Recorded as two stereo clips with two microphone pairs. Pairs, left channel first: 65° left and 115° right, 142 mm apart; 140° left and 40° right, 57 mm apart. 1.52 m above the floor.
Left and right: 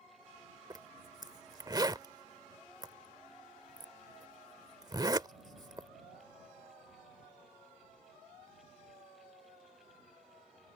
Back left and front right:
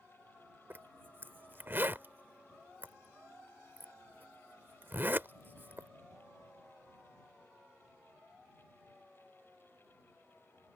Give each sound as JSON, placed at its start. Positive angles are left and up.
{"t": 0.7, "sound": "a zipper", "azimuth_deg": -65}